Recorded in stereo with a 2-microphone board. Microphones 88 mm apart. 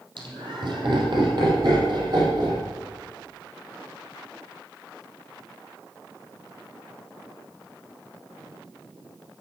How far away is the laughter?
About 5 m.